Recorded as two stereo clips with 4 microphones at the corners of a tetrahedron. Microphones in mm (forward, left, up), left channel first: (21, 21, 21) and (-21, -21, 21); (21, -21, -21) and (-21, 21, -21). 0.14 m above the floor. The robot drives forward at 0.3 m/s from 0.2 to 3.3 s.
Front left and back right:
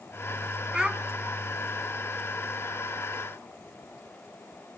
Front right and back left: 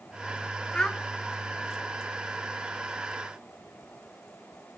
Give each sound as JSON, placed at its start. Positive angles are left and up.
{"t": 0.7, "sound": "a child speaking", "azimuth_deg": -85, "distance_m": 0.6}